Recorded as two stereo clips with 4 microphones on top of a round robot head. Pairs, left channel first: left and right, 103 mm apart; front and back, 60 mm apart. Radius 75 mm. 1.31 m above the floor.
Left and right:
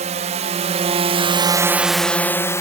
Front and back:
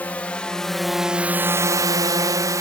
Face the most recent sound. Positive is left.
turn(degrees=150)